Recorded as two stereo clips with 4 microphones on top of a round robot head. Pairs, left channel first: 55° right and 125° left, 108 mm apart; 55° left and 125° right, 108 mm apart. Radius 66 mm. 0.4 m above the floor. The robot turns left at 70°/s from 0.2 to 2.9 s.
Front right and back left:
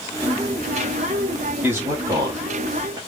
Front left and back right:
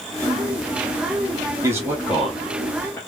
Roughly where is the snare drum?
No snare drum in this recording.